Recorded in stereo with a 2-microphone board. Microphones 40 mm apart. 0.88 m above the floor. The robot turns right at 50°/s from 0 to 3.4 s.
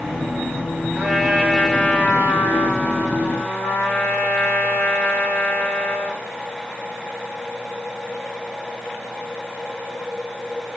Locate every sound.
0.9 s a trumpet: 25° right, 3 m; by 6.3 s 100° left, 3 m